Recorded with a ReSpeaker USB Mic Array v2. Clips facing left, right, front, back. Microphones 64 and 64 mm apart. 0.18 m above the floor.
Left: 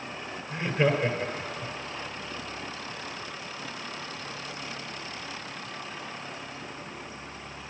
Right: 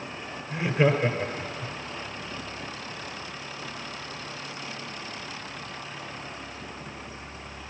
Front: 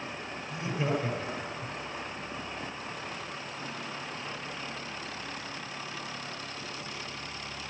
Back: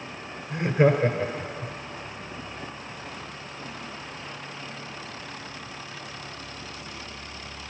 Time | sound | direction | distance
0.5 | laughter | 165° right | 1.9 m